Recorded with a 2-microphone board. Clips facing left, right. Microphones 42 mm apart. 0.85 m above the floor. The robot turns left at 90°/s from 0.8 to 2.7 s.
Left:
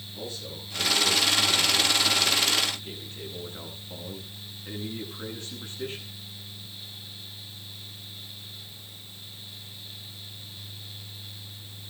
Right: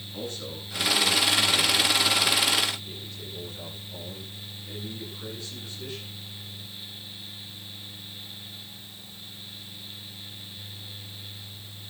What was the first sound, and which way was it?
A man speaking, 55° right.